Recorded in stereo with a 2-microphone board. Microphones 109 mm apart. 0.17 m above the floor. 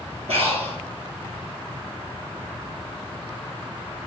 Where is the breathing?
70° right (ahead or behind), 2.5 m.